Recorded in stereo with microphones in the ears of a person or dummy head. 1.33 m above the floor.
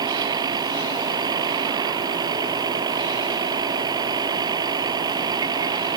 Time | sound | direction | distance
0.0 | a vehicle | 20° right (ahead or behind) | ?